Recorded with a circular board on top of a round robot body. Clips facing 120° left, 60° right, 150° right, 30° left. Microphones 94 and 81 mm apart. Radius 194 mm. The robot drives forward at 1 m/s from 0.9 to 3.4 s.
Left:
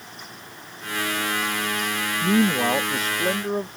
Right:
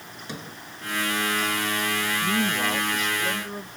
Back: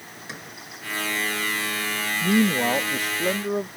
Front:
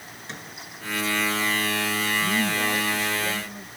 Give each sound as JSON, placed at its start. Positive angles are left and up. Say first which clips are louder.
{"t": 0.3, "sound": "a sliding door", "louder": "right 5 dB, even", "azimuth_deg": -65}
{"t": 2.2, "sound": "a man speaking", "louder": "left 8 dB, back 9 dB", "azimuth_deg": 175}